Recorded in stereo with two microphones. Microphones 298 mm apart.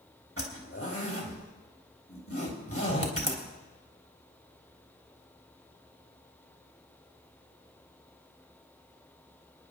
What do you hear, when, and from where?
0.4 s a zipper: 50° left (ahead or behind), 3 m